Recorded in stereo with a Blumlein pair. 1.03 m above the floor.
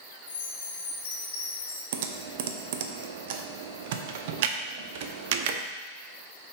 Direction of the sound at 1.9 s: 50° right.